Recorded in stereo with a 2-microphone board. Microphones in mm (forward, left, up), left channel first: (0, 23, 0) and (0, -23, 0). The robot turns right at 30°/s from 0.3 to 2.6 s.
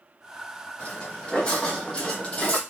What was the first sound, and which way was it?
Footsteps, 30° left (ahead or behind).